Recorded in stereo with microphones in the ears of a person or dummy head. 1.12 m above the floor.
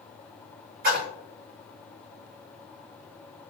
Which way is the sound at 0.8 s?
50° right (ahead or behind).